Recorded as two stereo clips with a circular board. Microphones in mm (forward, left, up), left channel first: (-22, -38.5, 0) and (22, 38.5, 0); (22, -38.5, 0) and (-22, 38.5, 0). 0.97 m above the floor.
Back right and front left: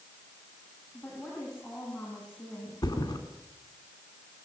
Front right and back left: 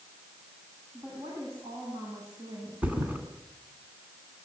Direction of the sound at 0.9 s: 165° left.